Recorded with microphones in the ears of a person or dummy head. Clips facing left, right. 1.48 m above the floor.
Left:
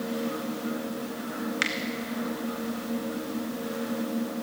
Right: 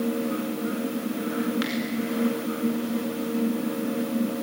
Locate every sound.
1.6 s a finger snap: 25° left (ahead or behind), 2 m